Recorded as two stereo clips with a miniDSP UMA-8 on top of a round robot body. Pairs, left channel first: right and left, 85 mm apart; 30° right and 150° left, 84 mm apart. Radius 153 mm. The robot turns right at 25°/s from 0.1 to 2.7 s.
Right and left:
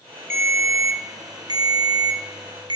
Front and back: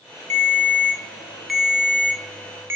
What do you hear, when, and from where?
0.3 s a ringtone: 30° left, 0.5 m; by 2.8 s 90° left, 0.5 m